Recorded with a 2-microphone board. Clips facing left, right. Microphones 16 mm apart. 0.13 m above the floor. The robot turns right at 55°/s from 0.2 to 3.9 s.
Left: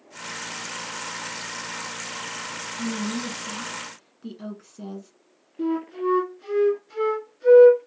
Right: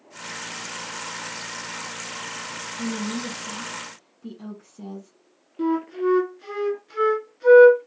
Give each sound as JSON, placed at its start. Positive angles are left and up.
{"t": 2.8, "sound": "a woman speaking", "side_deg": 15, "distance_m": 1.3}
{"t": 5.6, "sound": "a flute", "side_deg": -30, "distance_m": 0.8}